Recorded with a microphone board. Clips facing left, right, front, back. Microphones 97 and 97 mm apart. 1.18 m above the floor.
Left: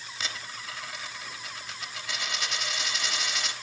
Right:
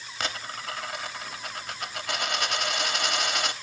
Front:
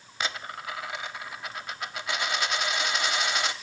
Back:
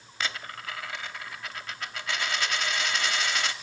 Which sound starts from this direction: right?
A dropped coin, at 0.2 s.